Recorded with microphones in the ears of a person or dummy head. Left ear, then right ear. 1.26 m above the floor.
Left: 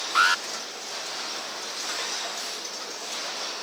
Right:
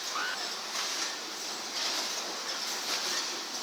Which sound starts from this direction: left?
An alarm, at 0.1 s.